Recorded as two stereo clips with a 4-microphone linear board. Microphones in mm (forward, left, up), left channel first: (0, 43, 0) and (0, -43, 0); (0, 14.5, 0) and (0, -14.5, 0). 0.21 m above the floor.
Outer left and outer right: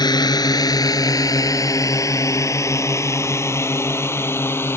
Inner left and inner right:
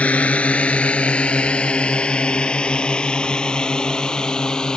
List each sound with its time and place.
0.0 s a drone: 50° left (ahead or behind); by 4.8 s 25° left (ahead or behind)